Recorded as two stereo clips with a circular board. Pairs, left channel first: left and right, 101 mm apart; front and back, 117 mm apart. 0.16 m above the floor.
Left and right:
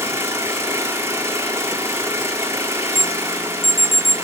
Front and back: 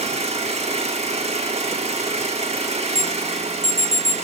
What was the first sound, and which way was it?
An engine running, 155° right.